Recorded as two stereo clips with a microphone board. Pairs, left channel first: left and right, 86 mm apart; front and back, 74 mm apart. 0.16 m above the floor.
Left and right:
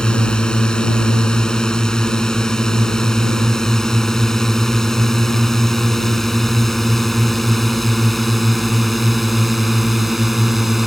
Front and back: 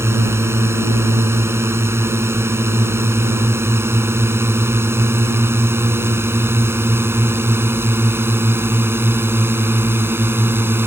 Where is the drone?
165° left; by 10.9 s 175° right.